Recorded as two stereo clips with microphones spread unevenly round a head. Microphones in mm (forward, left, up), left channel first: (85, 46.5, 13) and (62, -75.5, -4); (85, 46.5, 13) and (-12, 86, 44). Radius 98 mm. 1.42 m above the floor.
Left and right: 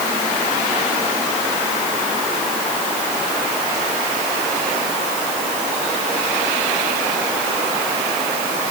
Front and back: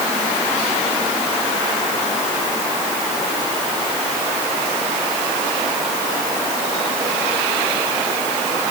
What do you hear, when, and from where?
Only background noise.